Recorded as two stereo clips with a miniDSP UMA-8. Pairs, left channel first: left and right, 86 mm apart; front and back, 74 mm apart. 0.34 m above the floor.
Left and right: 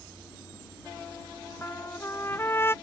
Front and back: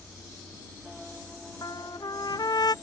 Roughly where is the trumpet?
Ahead left.